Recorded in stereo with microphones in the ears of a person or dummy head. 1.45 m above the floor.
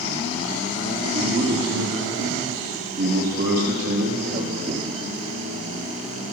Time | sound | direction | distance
1.0 | a man speaking | 75° right (ahead or behind) | 3.5 m